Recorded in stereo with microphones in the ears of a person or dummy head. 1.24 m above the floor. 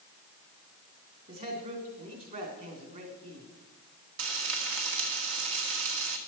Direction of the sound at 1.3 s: 45° right (ahead or behind).